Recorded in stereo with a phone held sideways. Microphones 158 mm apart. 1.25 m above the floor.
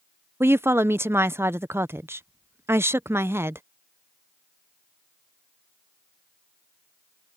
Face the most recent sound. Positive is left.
turn(degrees=-15)  # may be behind; listen again after turning